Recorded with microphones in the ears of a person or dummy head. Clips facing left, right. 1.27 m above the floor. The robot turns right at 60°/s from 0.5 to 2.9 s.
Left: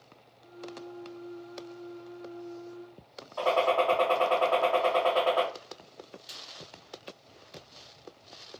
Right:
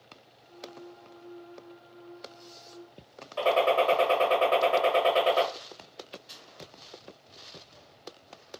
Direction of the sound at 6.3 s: 35° left (ahead or behind).